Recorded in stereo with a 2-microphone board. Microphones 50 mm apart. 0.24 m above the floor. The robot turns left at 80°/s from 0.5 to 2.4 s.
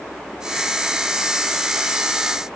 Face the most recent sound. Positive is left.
No sound to turn to.